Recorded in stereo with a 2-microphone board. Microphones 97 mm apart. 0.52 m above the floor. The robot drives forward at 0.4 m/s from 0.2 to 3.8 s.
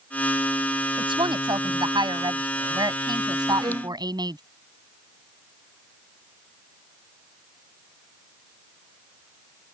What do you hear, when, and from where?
1.0 s a woman speaking: 55° right (ahead or behind); by 4.4 s 45° right (ahead or behind)
3.6 s a violin: 50° right (ahead or behind)